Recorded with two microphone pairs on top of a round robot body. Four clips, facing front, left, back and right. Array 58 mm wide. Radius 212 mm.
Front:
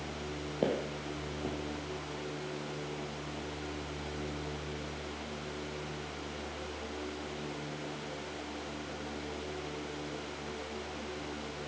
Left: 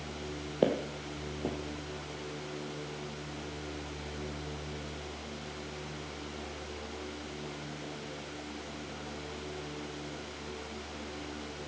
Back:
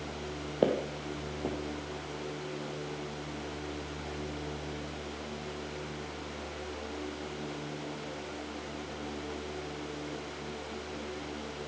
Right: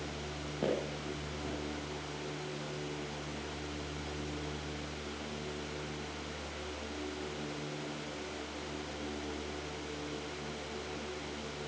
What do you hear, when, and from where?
0.6 s footsteps: 140° left, 1.1 m